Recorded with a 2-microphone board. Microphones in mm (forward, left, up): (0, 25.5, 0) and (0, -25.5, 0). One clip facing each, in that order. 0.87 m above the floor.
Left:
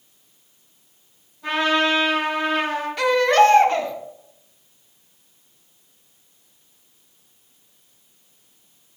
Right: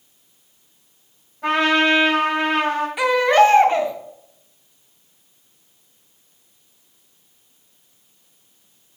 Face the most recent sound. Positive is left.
turn(degrees=-15)  # may be behind; listen again after turning